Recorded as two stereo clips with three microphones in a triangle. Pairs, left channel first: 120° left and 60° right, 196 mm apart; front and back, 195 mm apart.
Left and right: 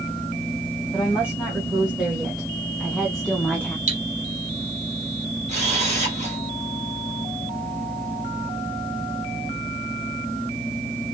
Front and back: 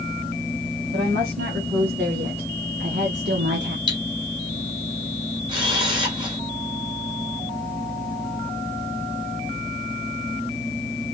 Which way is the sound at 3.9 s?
110° right.